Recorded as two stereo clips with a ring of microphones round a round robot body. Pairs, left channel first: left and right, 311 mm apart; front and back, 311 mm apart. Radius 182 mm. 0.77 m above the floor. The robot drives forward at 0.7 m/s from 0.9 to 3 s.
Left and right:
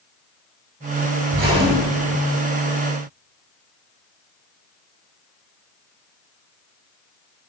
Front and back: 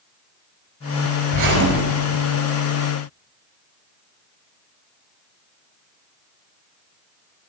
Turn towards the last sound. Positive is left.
turn(degrees=-160)